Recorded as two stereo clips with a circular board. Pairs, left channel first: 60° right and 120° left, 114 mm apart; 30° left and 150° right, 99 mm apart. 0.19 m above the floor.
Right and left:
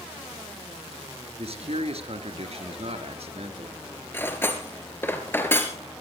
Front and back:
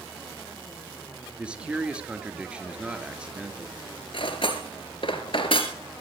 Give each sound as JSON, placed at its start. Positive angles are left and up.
{"t": 1.4, "sound": "a man speaking", "azimuth_deg": 135, "distance_m": 3.0}
{"t": 4.1, "sound": "cutlery clinking", "azimuth_deg": 10, "distance_m": 2.5}